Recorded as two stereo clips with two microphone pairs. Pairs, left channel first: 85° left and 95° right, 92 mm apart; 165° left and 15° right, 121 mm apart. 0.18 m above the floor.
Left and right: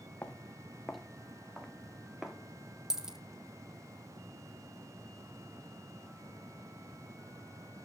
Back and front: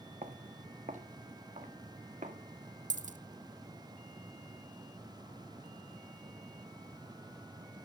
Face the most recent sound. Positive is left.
turn(degrees=-10)